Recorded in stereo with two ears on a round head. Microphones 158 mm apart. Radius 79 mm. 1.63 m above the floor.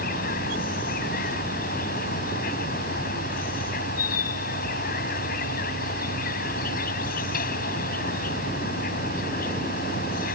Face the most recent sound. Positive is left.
turn(degrees=50)  # may be behind; listen again after turning